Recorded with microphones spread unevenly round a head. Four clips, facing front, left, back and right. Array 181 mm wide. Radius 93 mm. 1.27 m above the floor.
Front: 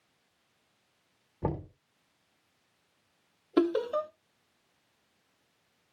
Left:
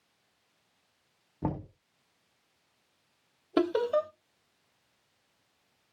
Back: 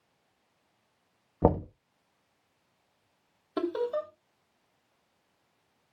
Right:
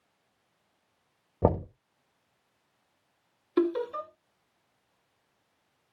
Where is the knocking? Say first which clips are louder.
Right 9 dB, back 9 dB; 140° right, 1.3 m.